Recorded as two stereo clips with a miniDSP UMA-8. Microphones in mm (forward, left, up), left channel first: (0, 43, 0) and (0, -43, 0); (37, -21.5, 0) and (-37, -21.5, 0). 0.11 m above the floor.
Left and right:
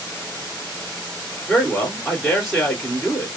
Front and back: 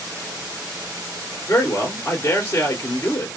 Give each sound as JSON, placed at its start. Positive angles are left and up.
{"t": 1.5, "sound": "a man speaking", "azimuth_deg": 0, "distance_m": 1.9}